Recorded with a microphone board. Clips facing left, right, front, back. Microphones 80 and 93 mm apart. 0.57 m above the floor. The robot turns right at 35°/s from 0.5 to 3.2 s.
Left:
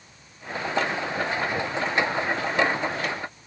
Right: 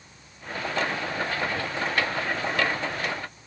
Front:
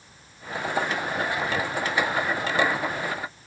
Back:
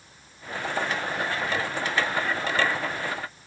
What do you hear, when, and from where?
Only background noise.